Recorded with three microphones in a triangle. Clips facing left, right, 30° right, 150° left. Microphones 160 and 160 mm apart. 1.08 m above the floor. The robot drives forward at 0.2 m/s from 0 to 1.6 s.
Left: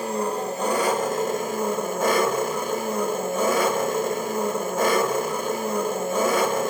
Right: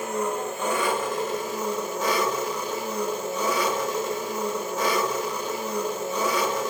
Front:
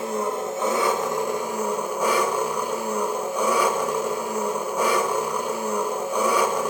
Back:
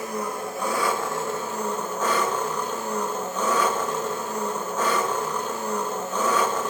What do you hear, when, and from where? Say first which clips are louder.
0.0 s an engine running: left 2 dB, front 4 dB; 35° left, 1.0 m; by 6.7 s 45° left, 0.7 m